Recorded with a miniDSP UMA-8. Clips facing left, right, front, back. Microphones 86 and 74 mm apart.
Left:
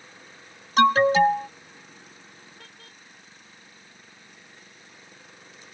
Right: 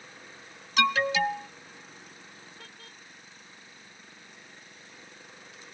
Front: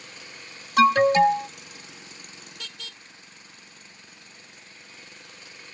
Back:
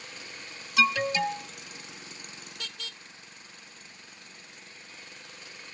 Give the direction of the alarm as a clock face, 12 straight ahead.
11 o'clock.